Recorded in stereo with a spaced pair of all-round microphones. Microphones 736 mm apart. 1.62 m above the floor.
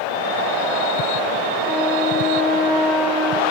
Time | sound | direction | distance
1.6 | a flute | centre (ahead or behind) | 2.5 m